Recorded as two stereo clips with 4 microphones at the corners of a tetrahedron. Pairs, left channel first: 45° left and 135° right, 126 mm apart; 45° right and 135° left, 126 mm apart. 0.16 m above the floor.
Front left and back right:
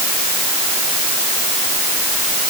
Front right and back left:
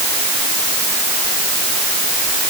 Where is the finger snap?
No finger snap in this recording.